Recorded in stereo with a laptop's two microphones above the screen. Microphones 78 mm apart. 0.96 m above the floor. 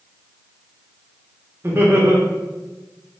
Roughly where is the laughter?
Right.